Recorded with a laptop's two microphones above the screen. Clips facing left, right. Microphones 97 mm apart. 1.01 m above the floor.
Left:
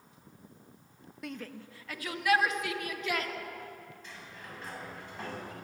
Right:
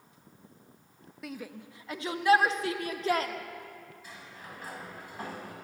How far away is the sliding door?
About 7.5 m.